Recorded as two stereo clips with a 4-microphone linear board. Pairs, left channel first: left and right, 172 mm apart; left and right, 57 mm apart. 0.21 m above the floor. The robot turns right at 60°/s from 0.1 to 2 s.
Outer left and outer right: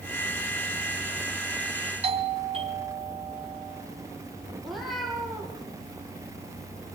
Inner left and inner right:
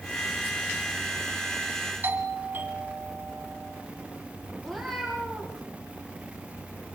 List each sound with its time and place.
2.0 s a doorbell: 40° right (ahead or behind), 2 m
4.6 s a cat meowing: centre (ahead or behind), 5 m